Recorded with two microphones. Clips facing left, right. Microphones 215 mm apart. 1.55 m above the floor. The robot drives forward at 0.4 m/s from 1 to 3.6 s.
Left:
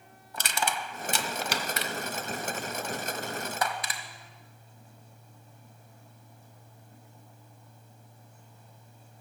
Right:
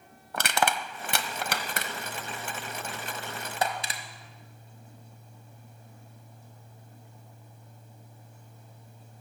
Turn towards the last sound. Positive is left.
turn(degrees=-25)  # may be behind; listen again after turning